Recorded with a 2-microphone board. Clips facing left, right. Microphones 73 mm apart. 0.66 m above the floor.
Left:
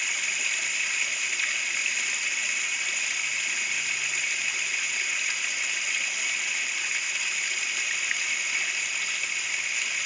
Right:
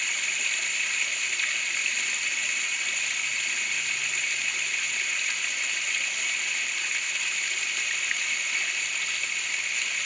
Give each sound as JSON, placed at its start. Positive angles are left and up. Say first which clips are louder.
{"t": 0.0, "sound": "running water", "louder": "even", "side_deg": 5, "distance_m": 0.7}